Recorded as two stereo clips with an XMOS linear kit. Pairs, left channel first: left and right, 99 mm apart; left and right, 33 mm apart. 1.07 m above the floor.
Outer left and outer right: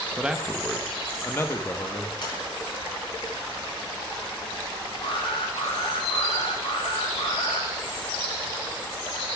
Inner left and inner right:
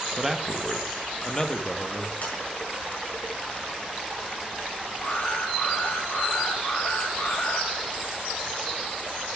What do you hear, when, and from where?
0.2 s a man speaking: 10° right (ahead or behind), 0.9 m; by 2.1 s 35° left (ahead or behind), 1.3 m
2.2 s a sliding door: 50° left (ahead or behind), 7 m
5.0 s an alarm: 80° left, 5.5 m